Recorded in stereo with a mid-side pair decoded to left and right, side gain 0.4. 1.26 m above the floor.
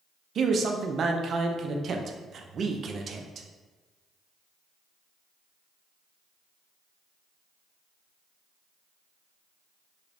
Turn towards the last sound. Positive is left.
turn(degrees=-60)